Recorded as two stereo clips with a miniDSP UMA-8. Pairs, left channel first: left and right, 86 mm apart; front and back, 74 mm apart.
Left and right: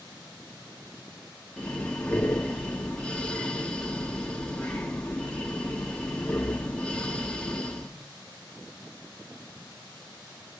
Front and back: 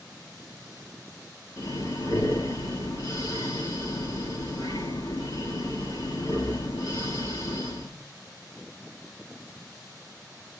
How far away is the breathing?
About 2.5 m.